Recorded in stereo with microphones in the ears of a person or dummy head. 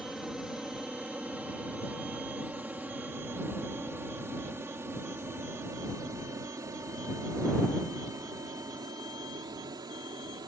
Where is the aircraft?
Centre (ahead or behind); by 10.5 s 15° right (ahead or behind).